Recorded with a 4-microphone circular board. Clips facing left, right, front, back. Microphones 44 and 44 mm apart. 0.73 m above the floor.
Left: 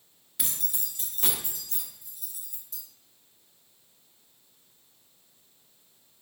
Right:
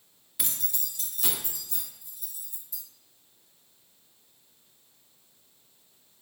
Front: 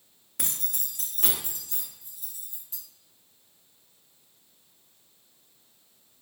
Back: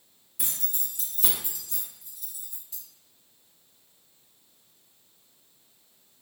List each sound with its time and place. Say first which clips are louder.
0.4 s keys jangling: even, front 2 dB; straight ahead, 0.6 m; by 2.8 s 65° left, 1.4 m